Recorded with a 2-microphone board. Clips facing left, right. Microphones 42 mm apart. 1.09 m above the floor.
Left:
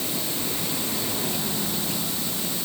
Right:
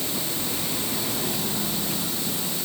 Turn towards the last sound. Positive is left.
No sound to turn to.